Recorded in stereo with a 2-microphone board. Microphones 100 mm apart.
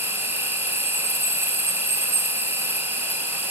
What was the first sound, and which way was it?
An insect, 25° right (ahead or behind).